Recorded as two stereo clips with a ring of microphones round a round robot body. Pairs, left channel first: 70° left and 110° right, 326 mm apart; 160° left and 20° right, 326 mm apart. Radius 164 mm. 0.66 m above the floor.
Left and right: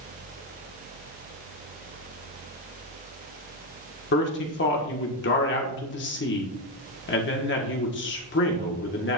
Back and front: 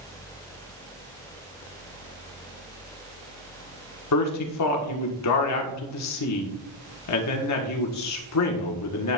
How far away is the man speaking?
About 1.4 m.